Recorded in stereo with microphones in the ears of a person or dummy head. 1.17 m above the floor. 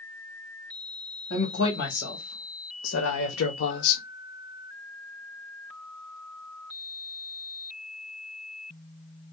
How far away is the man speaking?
About 2 m.